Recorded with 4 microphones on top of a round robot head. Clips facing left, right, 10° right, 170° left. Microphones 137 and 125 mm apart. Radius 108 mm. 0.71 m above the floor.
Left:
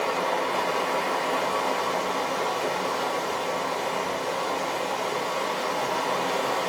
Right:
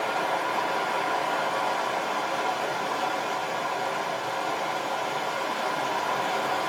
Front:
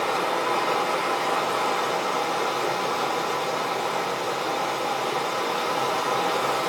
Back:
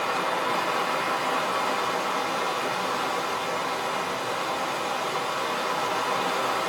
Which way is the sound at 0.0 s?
40° left.